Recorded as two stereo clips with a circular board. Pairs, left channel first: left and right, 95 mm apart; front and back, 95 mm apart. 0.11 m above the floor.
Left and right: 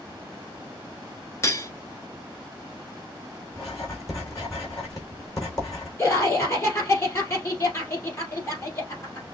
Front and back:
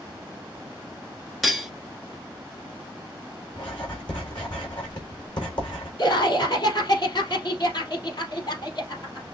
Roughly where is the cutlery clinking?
Left.